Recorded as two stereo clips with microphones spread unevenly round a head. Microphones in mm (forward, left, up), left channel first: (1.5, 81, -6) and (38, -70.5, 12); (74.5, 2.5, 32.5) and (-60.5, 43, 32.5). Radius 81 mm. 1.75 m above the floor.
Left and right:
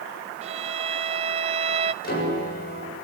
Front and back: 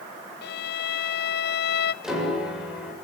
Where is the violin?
25° right, 0.9 m.